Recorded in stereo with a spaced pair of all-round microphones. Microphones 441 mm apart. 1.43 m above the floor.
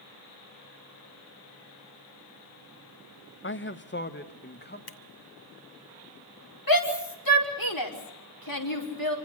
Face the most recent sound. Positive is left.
turn(degrees=50)  # may be behind; listen again after turning